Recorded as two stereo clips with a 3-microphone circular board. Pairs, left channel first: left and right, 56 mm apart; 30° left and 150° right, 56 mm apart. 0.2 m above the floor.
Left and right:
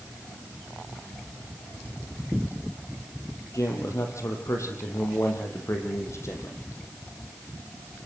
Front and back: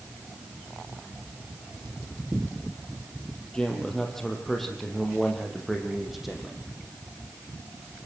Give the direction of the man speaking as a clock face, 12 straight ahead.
8 o'clock.